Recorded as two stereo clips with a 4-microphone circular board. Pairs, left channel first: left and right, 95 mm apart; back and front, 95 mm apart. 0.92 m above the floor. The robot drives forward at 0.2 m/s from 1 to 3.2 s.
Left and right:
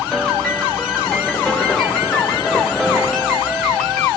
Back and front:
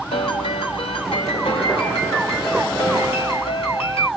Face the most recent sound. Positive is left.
turn(degrees=175)